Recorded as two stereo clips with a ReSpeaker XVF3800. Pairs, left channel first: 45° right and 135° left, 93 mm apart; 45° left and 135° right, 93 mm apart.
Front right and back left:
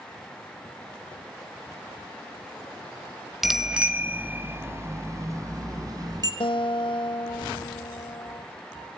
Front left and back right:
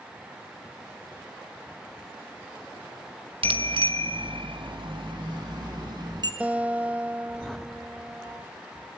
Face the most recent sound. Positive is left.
turn(degrees=-60)